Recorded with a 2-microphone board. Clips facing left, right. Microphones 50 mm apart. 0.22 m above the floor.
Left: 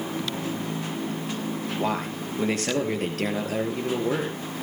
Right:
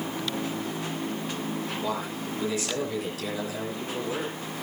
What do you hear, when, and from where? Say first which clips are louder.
1.8 s a man speaking: left 3 dB; 55° left (ahead or behind), 4.5 m